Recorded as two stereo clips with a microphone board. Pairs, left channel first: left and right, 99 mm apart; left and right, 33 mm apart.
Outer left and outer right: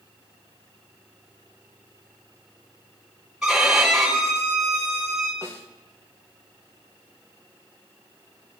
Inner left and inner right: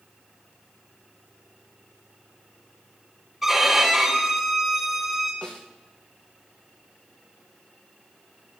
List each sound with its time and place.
3.4 s a violin: 5° right (ahead or behind), 7 m
5.4 s a snare drum: 30° left (ahead or behind), 3 m